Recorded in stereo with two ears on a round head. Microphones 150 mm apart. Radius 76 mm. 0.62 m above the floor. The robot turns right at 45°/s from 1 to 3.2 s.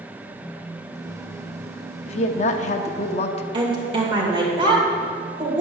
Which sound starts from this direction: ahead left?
A woman speaking, at 2.1 s.